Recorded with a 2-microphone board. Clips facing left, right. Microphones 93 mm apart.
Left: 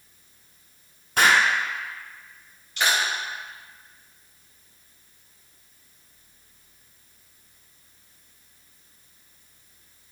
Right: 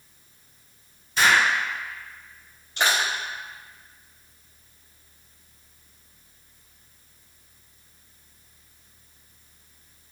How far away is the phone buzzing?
No phone buzzing in this recording.